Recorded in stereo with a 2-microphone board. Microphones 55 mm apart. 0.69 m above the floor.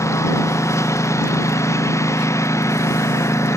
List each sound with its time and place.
0.0 s a lawn mower: 70° left (ahead or behind)